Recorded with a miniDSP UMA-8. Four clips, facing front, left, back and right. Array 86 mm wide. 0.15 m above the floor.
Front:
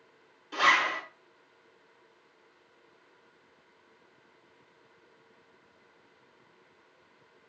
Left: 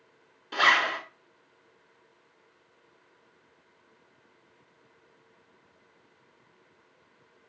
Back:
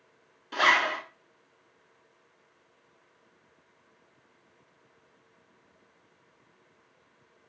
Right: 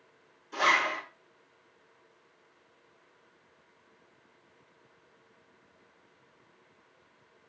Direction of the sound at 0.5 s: 110° left.